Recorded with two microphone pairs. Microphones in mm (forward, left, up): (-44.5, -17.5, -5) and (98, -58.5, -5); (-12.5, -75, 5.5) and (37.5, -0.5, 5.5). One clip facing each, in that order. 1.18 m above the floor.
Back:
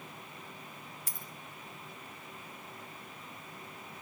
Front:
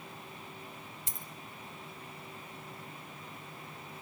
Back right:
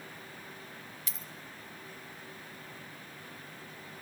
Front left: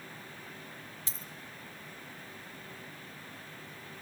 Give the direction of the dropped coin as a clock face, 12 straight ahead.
11 o'clock.